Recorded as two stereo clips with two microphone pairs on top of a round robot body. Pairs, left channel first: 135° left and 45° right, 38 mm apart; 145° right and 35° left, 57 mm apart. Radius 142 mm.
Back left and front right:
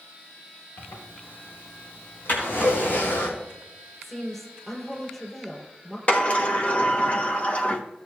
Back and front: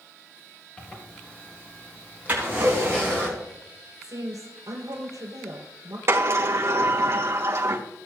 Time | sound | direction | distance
0.8 | a zipper | 145° left | 2.5 m
2.3 | a drawer | 95° left | 6 m
4.0 | a woman speaking | 55° left | 5.5 m
6.1 | a sliding door | 80° left | 1.0 m